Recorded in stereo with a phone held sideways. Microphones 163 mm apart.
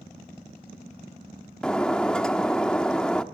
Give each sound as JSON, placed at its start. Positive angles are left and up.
{"t": 1.6, "sound": "breaking glass", "side_deg": 5, "distance_m": 1.2}